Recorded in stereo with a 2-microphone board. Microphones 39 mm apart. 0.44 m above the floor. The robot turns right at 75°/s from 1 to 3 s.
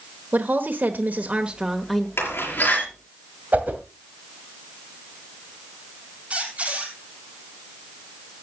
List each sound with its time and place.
0.3 s a woman speaking: 65° right, 1.1 m; by 2.1 s 15° left, 1.1 m
2.2 s a door slam: 75° left (ahead or behind), 5.5 m; by 2.8 s 30° left (ahead or behind), 5.5 m
3.5 s a whoosh: 45° right (ahead or behind), 2 m
6.3 s a squeak: 35° right (ahead or behind), 2.5 m